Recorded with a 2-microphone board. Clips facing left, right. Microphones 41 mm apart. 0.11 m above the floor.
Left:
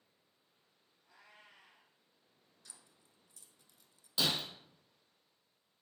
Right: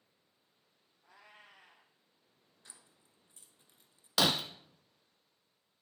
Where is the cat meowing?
75° right (ahead or behind), 1.5 m.